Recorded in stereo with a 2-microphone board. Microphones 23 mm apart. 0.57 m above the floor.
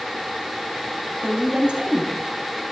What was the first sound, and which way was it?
A woman speaking, 55° right (ahead or behind).